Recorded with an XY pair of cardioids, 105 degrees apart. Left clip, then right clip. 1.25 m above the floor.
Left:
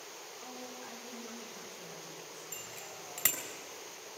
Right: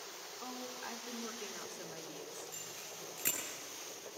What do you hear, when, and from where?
0.4 s a woman speaking: 50° right, 3 m
2.5 s a bicycle bell: 70° left, 4.5 m